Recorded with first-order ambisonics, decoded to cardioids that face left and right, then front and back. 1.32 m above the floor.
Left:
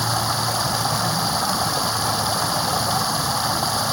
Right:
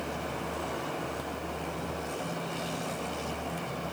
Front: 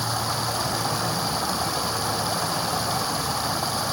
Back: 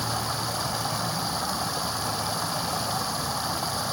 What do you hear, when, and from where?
0.0 s running water: 80° left